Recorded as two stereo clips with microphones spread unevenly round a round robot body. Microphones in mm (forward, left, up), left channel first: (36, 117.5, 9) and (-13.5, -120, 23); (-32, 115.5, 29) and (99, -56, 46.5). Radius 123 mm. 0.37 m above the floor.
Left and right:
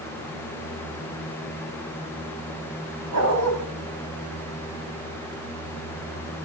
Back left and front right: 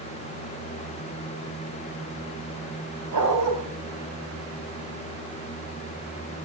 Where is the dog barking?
65° right, 7 m.